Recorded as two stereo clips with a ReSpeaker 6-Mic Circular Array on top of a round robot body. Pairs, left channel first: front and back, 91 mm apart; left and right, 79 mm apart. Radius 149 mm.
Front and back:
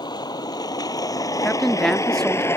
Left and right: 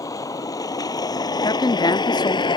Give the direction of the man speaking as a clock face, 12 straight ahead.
9 o'clock.